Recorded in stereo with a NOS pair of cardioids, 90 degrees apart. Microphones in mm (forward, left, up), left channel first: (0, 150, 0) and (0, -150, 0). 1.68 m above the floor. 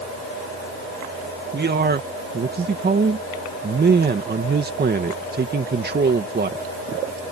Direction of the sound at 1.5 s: 30° right.